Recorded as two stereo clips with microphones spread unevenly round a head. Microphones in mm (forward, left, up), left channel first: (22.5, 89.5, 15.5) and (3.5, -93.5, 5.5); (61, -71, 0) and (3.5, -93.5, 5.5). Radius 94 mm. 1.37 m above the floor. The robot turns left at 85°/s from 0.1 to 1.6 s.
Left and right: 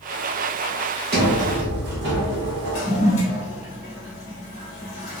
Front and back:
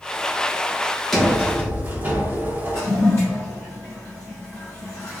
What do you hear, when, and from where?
1.1 s a sliding door: 70° right, 0.8 m; by 2.8 s 110° right, 0.8 m
2.7 s a toilet flushing: 70° left, 1.0 m